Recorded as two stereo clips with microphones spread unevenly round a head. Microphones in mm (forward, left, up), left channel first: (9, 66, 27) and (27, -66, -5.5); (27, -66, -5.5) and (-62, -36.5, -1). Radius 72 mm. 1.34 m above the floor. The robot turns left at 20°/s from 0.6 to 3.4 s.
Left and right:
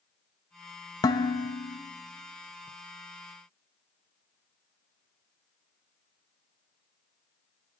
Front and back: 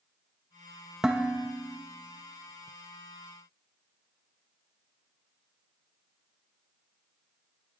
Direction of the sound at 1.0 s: 85° left.